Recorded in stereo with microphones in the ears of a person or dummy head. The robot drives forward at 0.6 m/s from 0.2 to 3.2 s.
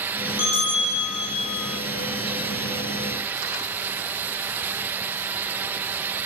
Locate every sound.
0.4 s a bell: 35° left (ahead or behind), 1.9 m; by 1.7 s 25° left (ahead or behind), 2.5 m